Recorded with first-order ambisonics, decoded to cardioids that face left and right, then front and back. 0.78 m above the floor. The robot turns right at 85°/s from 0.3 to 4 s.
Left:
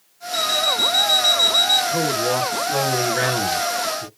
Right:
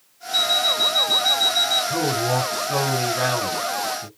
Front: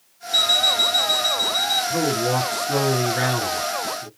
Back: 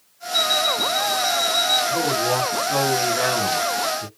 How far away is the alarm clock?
About 1.2 m.